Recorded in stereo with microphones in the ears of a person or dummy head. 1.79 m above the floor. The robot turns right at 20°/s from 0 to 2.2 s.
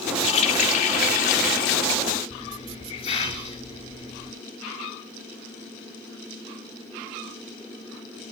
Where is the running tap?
45° left, 1.0 m; by 2.0 s 80° left, 1.0 m.